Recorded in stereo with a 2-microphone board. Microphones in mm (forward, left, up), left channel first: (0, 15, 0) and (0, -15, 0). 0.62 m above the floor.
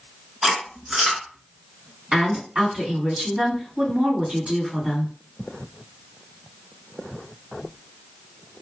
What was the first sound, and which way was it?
Chewing, 25° right (ahead or behind).